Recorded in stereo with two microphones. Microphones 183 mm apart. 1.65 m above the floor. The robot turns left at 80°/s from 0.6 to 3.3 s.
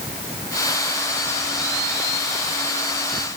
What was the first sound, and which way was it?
Only background noise.